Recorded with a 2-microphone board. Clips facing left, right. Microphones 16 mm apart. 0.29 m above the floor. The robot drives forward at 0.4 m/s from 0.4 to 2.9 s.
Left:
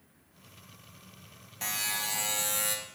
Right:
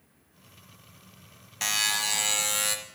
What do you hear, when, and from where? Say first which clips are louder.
1.6 s a buzzer: right 7 dB; 50° right (ahead or behind), 0.9 m; by 2.8 s 35° right (ahead or behind), 1.2 m